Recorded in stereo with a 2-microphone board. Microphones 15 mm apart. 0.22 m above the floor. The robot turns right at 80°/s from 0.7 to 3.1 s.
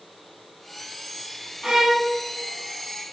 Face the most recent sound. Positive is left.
turn(degrees=0)